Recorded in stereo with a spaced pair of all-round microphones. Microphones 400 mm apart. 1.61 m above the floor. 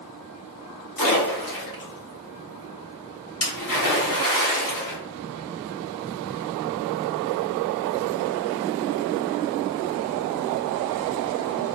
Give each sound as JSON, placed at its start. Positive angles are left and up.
{"t": 1.0, "sound": "a splash", "side_deg": 55, "distance_m": 1.0}